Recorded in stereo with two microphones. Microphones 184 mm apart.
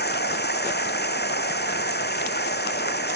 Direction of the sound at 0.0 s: 65° left (ahead or behind).